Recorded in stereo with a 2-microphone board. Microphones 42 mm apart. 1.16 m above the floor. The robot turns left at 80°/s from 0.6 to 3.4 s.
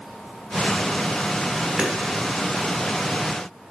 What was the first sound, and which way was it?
Hammering, 30° right (ahead or behind).